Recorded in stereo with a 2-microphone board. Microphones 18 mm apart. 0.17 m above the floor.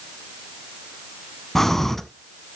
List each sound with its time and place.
1.6 s breathing: 20° left (ahead or behind), 0.8 m